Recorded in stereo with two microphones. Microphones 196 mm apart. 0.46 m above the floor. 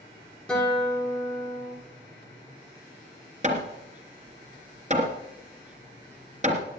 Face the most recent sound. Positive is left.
turn(degrees=-35)  # may be behind; listen again after turning